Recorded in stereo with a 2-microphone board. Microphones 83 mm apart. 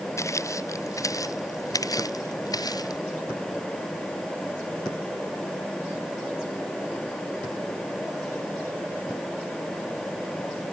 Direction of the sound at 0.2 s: 35° left (ahead or behind).